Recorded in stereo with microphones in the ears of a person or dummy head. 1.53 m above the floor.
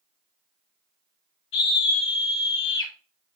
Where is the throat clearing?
I don't hear throat clearing.